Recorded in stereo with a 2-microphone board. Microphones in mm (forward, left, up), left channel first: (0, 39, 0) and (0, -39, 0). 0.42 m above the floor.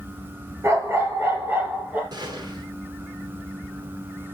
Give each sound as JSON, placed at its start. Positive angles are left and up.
{"t": 0.6, "sound": "a dog barking", "side_deg": -35, "distance_m": 2.5}
{"t": 2.1, "sound": "a gunshot", "side_deg": -65, "distance_m": 6.0}